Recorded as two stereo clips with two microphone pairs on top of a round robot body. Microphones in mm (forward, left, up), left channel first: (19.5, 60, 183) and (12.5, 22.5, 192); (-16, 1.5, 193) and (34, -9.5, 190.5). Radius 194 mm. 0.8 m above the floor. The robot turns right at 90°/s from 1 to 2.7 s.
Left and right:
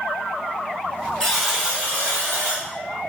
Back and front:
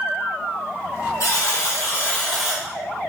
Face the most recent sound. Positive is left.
turn(degrees=-75)